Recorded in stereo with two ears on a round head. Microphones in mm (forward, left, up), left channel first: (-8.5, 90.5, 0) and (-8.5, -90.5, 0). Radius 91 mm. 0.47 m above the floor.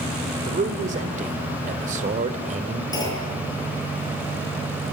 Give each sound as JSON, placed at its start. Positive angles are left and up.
{"t": 0.5, "sound": "a man speaking", "side_deg": -35, "distance_m": 2.0}
{"t": 2.9, "sound": "a clunk", "side_deg": 20, "distance_m": 9.0}